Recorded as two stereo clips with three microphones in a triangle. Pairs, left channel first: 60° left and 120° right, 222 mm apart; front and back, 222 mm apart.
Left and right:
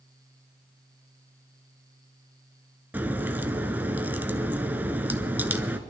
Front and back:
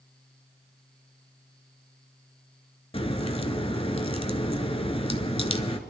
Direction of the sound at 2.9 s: 40° right.